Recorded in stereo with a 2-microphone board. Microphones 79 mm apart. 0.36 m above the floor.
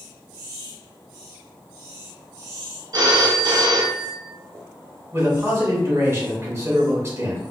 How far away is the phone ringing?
About 0.9 m.